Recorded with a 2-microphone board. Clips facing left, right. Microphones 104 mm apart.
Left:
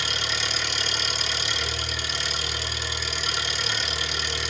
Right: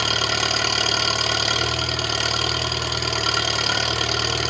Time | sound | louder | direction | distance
0.0 | an engine running | right 7 dB | 65° right (ahead or behind) | 1.1 m